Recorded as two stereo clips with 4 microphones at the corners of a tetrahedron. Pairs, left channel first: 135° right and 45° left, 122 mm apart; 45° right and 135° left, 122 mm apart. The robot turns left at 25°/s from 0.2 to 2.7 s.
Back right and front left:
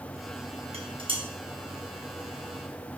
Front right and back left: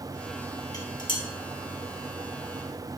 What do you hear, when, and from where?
0.7 s dishes clattering: 10° left, 3 m; by 1.2 s straight ahead, 3 m